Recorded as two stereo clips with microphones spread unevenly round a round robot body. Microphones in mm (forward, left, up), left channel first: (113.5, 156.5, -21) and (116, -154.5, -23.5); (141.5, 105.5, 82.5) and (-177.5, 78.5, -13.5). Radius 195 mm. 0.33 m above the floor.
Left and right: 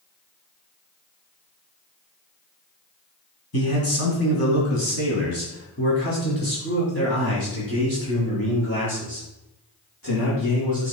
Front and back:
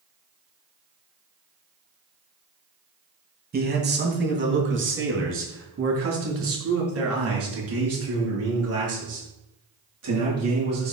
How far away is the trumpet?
I don't hear a trumpet.